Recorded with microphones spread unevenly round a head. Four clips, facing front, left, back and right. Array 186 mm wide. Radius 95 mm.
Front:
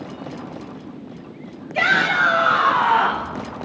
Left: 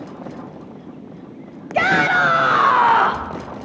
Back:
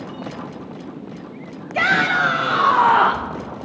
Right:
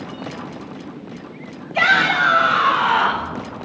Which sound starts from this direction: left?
A shout, at 1.7 s.